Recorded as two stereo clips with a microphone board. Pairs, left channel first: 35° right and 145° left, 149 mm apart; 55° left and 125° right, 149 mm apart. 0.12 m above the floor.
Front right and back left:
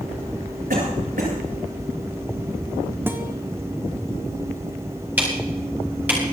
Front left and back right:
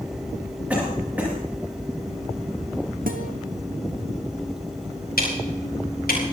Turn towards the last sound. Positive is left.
turn(degrees=65)